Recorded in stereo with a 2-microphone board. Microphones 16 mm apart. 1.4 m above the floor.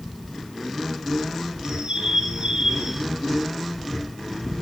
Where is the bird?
75° right (ahead or behind), 5.5 m.